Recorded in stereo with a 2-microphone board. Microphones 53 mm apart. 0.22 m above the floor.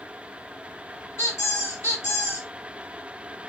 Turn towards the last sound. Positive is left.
turn(degrees=65)  # may be behind; listen again after turning